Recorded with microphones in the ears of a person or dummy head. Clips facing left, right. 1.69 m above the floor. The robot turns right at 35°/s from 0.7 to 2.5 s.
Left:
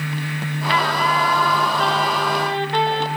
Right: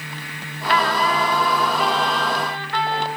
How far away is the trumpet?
About 1.0 m.